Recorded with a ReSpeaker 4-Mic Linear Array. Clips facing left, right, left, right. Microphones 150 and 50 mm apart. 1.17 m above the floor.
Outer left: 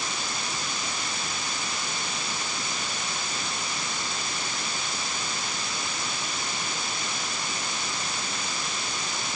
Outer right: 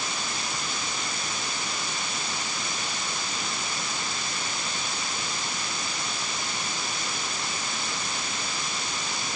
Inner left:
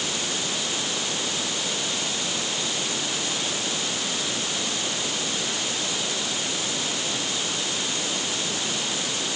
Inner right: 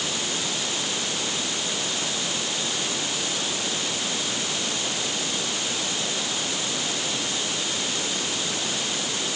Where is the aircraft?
No aircraft in this recording.